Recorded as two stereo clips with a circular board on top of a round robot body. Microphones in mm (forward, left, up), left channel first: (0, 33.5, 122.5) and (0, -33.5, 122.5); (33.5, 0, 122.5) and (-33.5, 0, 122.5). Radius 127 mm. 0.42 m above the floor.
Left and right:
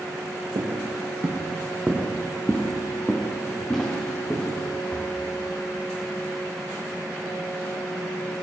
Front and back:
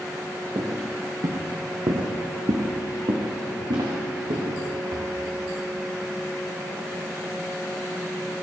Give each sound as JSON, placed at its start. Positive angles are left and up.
{"t": 0.6, "sound": "footsteps", "azimuth_deg": -130, "distance_m": 1.2}